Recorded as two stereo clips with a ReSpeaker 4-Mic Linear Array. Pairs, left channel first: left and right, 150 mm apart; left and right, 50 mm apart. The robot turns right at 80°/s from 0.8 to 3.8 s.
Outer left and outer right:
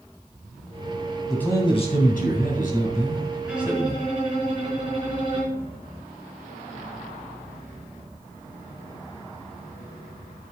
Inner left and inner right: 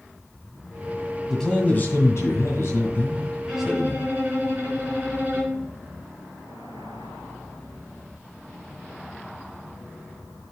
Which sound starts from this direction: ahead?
A man speaking, at 1.3 s.